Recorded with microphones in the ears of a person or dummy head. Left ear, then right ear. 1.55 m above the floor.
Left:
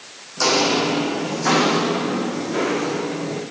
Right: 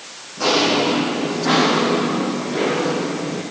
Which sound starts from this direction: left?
Footsteps, at 0.4 s.